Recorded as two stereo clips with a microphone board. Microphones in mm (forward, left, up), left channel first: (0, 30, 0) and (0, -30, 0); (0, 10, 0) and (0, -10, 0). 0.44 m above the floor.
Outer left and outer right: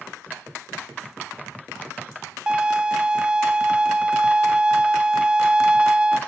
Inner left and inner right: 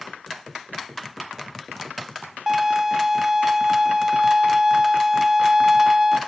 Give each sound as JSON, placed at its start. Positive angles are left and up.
{"t": 2.5, "sound": "a violin", "side_deg": -15, "distance_m": 0.9}